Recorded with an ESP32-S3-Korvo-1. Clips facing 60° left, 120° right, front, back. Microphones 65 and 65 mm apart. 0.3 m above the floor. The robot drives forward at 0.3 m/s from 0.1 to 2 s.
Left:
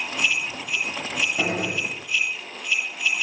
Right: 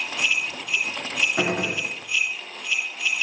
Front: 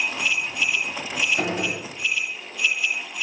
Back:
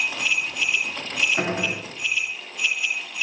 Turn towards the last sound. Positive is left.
turn(degrees=-125)